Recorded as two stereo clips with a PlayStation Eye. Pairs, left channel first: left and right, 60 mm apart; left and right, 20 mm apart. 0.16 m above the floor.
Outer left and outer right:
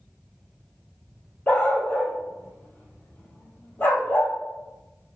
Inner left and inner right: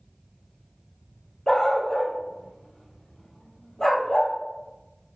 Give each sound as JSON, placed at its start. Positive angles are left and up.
{"t": 1.5, "sound": "a dog barking", "side_deg": 30, "distance_m": 2.5}